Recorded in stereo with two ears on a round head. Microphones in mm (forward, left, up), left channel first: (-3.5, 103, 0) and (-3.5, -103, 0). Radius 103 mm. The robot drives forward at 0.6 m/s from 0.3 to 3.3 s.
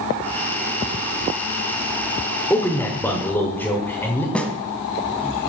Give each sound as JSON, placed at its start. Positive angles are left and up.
{"t": 2.5, "sound": "a man speaking", "side_deg": 10, "distance_m": 1.2}
{"t": 4.3, "sound": "a snare drum", "side_deg": 5, "distance_m": 1.2}